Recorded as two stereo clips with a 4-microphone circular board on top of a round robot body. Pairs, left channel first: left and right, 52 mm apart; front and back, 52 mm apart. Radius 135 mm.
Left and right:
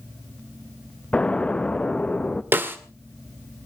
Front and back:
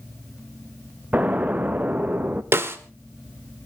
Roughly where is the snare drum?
Behind right.